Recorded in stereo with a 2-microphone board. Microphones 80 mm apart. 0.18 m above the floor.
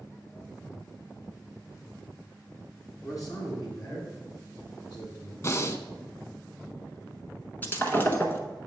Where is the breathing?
40° left (ahead or behind), 0.5 m.